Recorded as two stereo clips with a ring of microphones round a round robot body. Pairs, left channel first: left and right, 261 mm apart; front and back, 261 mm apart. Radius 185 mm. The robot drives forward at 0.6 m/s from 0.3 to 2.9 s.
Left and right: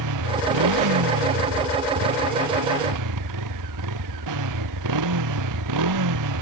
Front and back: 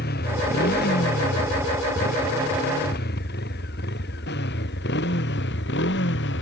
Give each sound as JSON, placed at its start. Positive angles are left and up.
{"t": 0.0, "sound": "a motorcycle", "azimuth_deg": -65}